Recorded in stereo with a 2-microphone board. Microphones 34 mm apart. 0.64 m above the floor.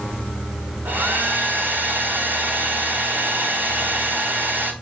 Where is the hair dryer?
65° right (ahead or behind), 2.5 m.